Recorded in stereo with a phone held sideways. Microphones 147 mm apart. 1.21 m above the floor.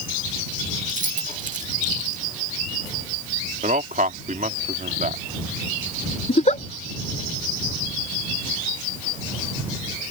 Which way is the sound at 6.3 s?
50° left (ahead or behind).